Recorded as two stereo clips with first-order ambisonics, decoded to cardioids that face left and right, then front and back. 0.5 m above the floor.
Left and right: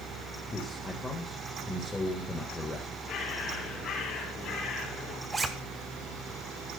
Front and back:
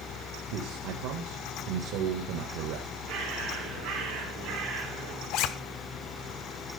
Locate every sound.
0.5 s a man speaking: 170° left, 1.7 m
3.1 s a bird: 145° left, 4 m
5.3 s a zipper: 20° right, 1.0 m